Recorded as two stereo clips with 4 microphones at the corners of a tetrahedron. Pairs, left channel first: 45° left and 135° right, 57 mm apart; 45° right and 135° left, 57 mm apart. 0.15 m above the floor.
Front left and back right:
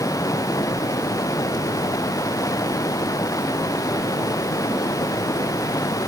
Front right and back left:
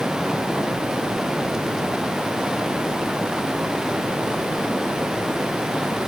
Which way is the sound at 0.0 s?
55° left.